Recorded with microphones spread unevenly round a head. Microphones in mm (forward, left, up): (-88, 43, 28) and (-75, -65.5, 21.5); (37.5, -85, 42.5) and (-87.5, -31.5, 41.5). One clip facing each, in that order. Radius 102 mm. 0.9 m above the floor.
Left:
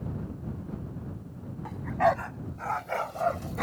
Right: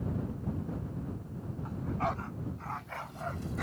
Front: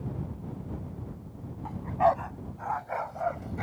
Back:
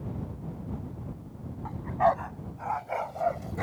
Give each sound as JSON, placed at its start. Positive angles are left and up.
{"t": 1.6, "sound": "a dog barking", "azimuth_deg": 55}